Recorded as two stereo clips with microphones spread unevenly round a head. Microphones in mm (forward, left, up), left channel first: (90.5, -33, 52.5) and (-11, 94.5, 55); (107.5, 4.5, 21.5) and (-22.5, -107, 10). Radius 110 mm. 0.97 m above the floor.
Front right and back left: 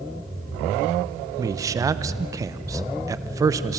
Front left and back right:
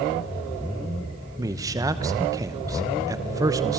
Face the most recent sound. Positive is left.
turn(degrees=180)